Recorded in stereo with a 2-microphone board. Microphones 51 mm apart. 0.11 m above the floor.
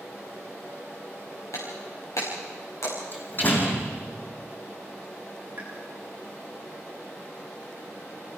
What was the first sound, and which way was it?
Breaking glass, 80° left.